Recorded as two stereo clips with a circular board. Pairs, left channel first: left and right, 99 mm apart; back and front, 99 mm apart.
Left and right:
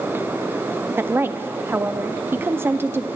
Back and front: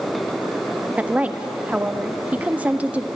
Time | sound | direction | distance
1.0 | a woman speaking | 55° right | 0.5 m